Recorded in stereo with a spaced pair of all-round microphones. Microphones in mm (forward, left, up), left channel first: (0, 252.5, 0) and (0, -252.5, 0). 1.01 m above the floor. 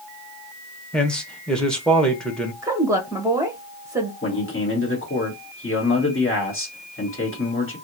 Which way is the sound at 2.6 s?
5° right (ahead or behind).